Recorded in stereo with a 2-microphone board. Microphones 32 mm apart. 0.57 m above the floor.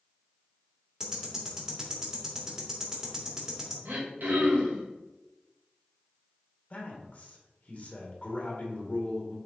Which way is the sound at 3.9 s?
70° right (ahead or behind).